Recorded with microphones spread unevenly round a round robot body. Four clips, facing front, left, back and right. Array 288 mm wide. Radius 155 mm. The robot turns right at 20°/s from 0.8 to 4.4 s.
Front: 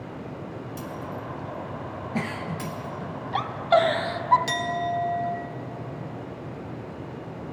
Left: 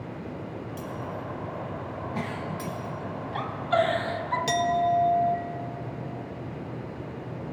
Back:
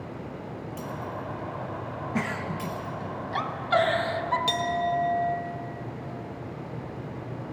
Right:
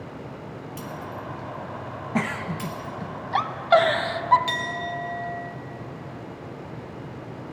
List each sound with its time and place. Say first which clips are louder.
0.8 s breaking glass: right 1 dB, back 1 dB; 40° right, 4.5 m; by 3.0 s 5° left, 4.5 m
2.1 s a giggle: right 8 dB, even; 85° right, 0.8 m; by 4.4 s 40° right, 0.8 m
4.5 s a clink: left 7 dB, back 1 dB; 90° left, 0.6 m